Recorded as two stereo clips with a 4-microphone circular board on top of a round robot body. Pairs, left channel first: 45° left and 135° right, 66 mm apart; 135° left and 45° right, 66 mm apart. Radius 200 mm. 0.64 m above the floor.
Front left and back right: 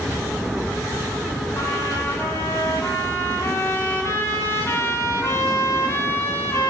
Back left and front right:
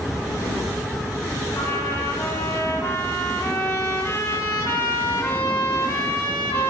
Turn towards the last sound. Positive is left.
turn(degrees=85)